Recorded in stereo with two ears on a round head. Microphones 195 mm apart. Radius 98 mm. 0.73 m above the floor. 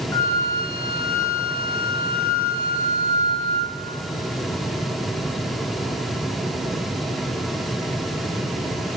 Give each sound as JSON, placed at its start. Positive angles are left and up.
{"t": 0.1, "sound": "a flute", "side_deg": 10, "distance_m": 1.2}